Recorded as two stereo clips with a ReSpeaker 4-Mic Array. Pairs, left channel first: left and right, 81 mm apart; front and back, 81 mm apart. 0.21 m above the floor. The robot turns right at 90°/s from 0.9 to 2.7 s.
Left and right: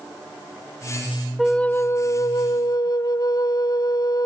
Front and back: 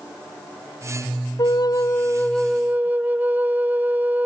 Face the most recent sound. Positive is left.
turn(degrees=115)